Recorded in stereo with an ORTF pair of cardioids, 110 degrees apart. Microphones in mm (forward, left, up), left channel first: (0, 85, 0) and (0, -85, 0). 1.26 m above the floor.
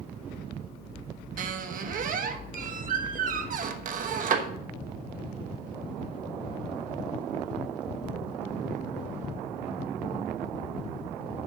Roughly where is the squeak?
Ahead right.